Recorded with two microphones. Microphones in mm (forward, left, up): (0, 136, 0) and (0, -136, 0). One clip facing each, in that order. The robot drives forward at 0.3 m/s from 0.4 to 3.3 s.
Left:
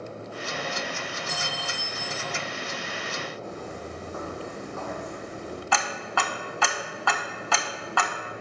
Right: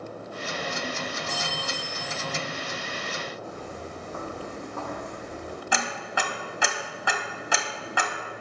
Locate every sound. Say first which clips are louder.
1.3 s a clink: right 2 dB; 5° left (ahead or behind), 2 m
3.4 s footsteps: left 1 dB; 20° right (ahead or behind), 3 m; by 5.6 s 50° right (ahead or behind), 3 m
5.7 s ticking: even; 20° right (ahead or behind), 0.6 m